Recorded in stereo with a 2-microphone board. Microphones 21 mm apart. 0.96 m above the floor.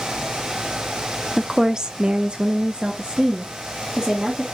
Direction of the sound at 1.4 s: 10° right (ahead or behind).